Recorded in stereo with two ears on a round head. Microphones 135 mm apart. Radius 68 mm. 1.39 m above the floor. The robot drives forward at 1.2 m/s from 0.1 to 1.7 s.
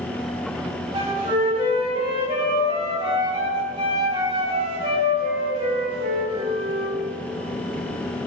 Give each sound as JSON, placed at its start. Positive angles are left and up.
{"t": 0.9, "sound": "a flute", "side_deg": -30, "distance_m": 7.0}